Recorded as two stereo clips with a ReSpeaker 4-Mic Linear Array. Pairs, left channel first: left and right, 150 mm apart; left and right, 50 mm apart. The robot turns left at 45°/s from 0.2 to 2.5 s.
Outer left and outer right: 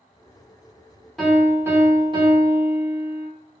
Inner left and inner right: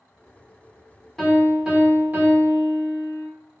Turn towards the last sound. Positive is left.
turn(degrees=-55)